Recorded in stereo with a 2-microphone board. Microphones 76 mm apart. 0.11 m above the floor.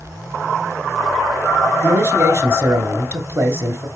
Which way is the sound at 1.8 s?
30° right (ahead or behind).